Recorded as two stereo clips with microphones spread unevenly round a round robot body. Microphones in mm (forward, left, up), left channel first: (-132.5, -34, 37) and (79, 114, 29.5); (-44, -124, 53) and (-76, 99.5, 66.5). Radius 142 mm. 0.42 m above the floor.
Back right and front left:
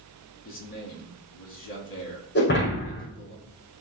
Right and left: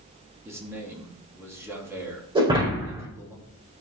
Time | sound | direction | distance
0.5 | a man speaking | 175° left | 3.5 m
2.4 | breaking glass | 165° left | 5 m